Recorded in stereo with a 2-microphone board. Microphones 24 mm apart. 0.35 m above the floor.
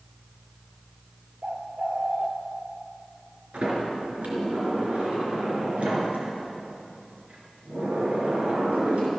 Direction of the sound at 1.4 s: 40° right (ahead or behind).